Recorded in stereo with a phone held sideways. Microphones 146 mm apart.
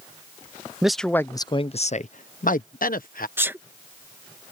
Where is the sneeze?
15° right (ahead or behind).